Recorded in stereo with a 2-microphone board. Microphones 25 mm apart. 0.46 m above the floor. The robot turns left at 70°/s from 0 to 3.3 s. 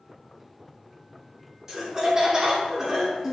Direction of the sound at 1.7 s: 20° right (ahead or behind).